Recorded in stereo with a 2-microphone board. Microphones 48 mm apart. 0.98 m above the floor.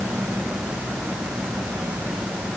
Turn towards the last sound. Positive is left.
No sound to turn to.